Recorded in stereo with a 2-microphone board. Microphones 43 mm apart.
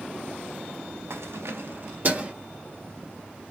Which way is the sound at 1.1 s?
70° right (ahead or behind).